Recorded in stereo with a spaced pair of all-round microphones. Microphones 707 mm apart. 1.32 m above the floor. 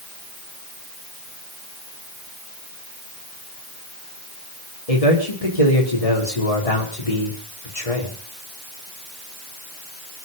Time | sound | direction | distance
4.9 | a man speaking | 55° left (ahead or behind) | 4.5 m